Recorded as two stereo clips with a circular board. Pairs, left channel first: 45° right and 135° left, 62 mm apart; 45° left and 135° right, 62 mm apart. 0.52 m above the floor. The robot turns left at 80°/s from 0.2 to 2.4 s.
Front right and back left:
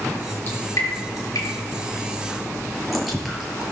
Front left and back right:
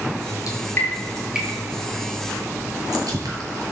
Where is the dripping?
15° left, 6 m; by 3.7 s 140° right, 6 m.